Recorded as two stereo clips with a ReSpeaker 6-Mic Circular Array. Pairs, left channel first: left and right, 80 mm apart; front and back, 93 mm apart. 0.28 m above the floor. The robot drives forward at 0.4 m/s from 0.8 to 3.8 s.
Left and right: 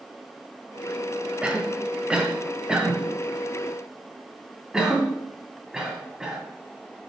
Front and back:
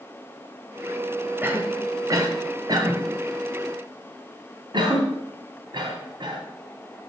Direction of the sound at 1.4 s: 145° right.